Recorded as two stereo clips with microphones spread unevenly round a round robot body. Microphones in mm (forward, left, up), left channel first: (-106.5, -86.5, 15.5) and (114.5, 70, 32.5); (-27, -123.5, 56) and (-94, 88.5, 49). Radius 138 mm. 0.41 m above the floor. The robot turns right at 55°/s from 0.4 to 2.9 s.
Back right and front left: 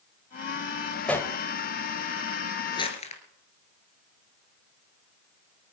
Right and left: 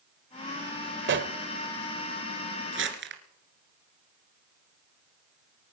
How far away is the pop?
About 1.2 m.